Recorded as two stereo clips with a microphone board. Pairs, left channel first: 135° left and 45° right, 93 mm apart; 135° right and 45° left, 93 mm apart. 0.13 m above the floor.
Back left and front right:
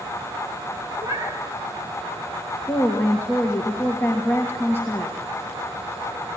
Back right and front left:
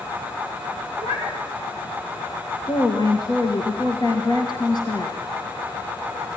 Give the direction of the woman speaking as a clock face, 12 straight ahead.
6 o'clock.